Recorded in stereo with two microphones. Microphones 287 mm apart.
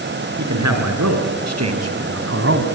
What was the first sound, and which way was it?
A man speaking, 75° right (ahead or behind).